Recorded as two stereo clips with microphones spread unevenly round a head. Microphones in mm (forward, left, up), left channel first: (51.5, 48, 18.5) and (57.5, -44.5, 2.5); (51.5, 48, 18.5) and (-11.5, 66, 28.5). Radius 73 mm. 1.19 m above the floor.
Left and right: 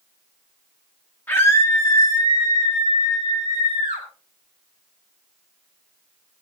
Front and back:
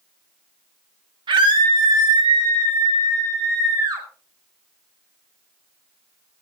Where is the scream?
175° left, 2.5 m; by 4.0 s 135° left, 6 m.